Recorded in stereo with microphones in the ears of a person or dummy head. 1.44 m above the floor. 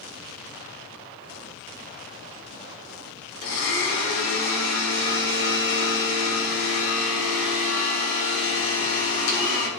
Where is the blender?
70° left (ahead or behind), 3.5 m.